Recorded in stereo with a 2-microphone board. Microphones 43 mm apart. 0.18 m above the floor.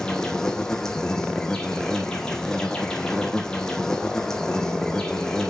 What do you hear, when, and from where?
0.0 s an insect: 10° left (ahead or behind), 1.2 m